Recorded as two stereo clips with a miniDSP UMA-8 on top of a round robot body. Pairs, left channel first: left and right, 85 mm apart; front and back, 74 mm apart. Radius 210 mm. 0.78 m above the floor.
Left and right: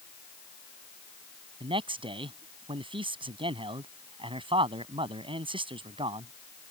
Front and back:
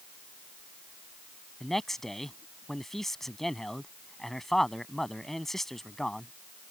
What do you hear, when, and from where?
1.6 s a man speaking: 85° right